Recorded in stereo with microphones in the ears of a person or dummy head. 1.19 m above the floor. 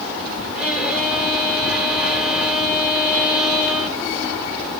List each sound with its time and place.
0.6 s a violin: centre (ahead or behind), 3 m